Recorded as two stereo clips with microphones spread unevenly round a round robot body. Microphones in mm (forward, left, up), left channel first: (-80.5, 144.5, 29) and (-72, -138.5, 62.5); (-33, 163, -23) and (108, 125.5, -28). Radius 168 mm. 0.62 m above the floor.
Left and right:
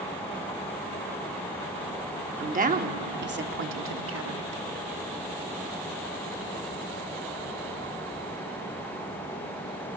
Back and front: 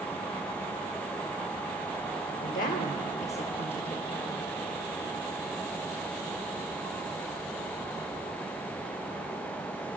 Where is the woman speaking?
155° right, 2 m; by 4.6 s 115° right, 1.9 m.